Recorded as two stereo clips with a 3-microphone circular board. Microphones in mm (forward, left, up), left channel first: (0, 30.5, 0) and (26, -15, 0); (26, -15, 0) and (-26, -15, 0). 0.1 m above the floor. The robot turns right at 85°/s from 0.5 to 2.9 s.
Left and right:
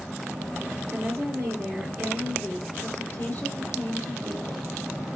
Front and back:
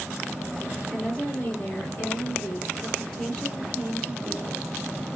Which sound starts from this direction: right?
A woman speaking, at 0.9 s.